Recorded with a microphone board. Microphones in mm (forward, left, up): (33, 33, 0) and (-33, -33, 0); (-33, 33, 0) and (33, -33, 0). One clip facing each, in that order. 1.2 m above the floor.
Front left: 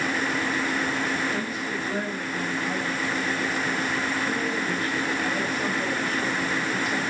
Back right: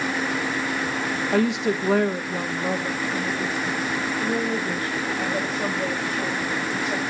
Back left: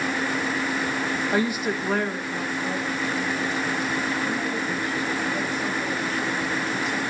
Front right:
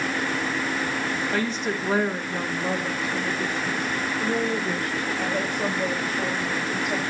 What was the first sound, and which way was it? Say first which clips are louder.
A woman speaking: back right 8 dB, back left 2 dB; 155° right.